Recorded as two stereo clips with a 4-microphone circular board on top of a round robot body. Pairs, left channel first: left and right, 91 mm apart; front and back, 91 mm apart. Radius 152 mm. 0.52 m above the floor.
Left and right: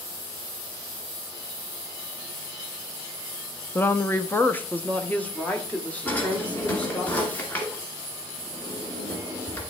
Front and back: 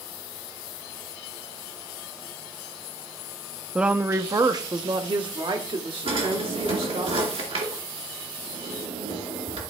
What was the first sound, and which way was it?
A woman speaking, 110° left.